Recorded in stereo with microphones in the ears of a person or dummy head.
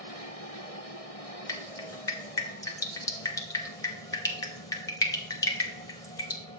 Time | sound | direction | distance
1.5 | dripping | 20° left (ahead or behind) | 0.6 m